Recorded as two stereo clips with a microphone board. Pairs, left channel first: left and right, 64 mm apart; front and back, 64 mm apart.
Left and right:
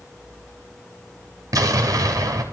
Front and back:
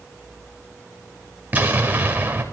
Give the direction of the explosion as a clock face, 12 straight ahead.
4 o'clock.